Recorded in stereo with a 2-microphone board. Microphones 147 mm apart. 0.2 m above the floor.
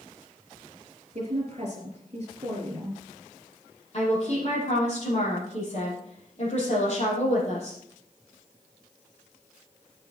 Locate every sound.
1.1 s a woman speaking: 45° right (ahead or behind), 4.5 m
3.9 s a woman speaking: 50° left (ahead or behind), 6.5 m